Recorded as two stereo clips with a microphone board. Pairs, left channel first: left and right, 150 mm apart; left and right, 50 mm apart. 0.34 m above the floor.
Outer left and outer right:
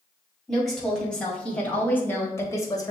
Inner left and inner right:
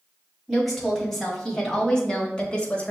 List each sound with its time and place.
0.5 s a woman speaking: centre (ahead or behind), 1.9 m; by 2.9 s 25° left (ahead or behind), 1.0 m